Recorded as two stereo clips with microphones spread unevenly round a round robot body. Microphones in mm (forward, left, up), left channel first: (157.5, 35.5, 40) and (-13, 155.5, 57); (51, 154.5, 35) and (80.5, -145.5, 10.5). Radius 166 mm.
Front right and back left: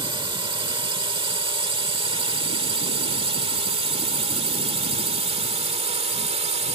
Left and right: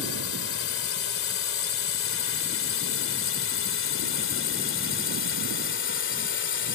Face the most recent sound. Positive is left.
turn(degrees=105)